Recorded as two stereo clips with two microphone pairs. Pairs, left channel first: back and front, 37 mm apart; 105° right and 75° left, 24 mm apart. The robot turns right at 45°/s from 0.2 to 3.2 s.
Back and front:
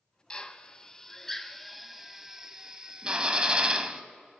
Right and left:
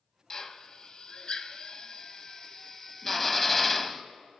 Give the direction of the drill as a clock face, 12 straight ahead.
5 o'clock.